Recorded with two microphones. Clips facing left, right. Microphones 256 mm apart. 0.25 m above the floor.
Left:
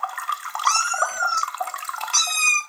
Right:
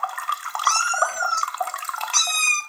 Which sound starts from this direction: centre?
A cat meowing, at 0.7 s.